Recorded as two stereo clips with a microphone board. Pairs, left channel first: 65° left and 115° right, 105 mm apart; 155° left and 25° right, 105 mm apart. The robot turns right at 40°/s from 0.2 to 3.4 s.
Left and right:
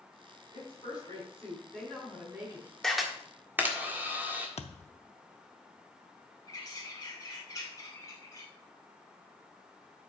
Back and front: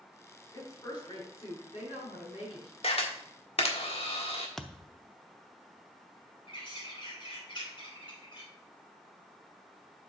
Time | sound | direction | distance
0.5 | a woman speaking | 95° left | 5 m
2.8 | a camera shutter | 150° left | 1.5 m
4.6 | a thud | 70° left | 0.6 m
6.5 | a bird | 125° left | 3 m